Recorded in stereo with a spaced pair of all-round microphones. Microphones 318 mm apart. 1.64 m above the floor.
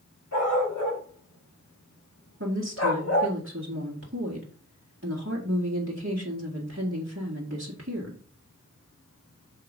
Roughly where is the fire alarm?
No fire alarm in this recording.